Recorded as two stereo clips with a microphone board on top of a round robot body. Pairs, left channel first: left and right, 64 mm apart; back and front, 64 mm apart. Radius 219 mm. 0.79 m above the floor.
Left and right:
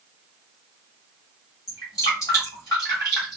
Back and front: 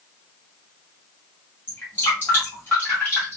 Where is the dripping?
120° left, 0.6 m.